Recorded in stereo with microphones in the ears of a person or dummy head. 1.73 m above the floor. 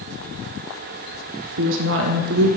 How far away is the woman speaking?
About 0.7 m.